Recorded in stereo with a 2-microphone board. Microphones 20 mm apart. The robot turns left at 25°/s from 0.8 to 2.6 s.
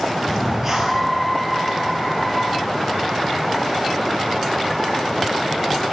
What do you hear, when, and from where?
0.3 s breathing: 25° right (ahead or behind), 2 m; by 1.1 s 35° right (ahead or behind), 2 m